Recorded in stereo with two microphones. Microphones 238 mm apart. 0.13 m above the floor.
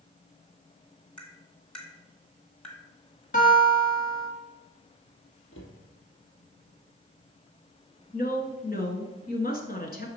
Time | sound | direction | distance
1.2 | tapping | 5° left (ahead or behind) | 1.4 m
3.3 | a guitar | 35° left (ahead or behind) | 1.9 m
5.5 | a cupboard door | 60° left (ahead or behind) | 1.8 m
8.1 | a woman speaking | 40° left (ahead or behind) | 1.4 m